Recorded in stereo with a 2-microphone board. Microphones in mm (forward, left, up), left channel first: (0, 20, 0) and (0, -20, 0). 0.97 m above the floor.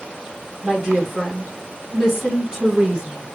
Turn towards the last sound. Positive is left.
turn(degrees=-25)  # may be behind; listen again after turning